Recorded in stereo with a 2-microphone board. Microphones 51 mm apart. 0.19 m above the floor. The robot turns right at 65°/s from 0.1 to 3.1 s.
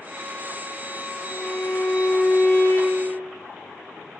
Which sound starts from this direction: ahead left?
A violin, at 1.2 s.